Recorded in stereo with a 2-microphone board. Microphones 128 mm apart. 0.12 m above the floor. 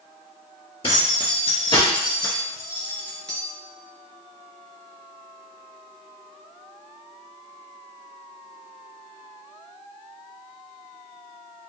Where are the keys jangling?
45° left (ahead or behind), 1.7 m; by 3.4 s 5° left (ahead or behind), 1.4 m.